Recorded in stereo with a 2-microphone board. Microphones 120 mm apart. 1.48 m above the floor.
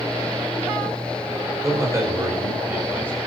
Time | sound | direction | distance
1.6 | a man speaking | 25° right (ahead or behind) | 5 m